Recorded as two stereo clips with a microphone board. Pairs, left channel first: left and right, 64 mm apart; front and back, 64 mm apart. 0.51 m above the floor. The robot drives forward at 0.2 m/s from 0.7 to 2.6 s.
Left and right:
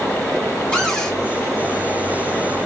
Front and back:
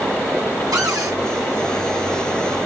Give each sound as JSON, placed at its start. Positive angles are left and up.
{"t": 0.7, "sound": "a cupboard door", "azimuth_deg": 175, "distance_m": 1.4}